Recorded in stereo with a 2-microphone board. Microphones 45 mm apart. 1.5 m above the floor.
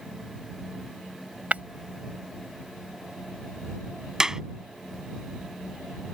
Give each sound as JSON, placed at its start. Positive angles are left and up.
{"t": 1.5, "sound": "breaking glass", "side_deg": -30}
{"t": 4.2, "sound": "a clap", "side_deg": -15}